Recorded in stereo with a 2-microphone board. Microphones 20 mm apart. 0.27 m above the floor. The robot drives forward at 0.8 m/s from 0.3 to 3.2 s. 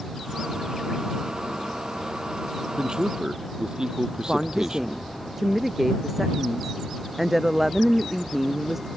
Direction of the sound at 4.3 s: 10° right (ahead or behind).